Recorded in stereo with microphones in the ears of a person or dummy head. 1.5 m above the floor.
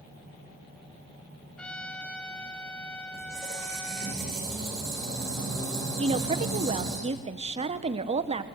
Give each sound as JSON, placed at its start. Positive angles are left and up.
{"t": 1.6, "sound": "a trumpet", "side_deg": 5, "distance_m": 1.2}
{"t": 3.1, "sound": "a squeak", "side_deg": -5, "distance_m": 6.0}
{"t": 6.0, "sound": "a woman speaking", "side_deg": -30, "distance_m": 1.0}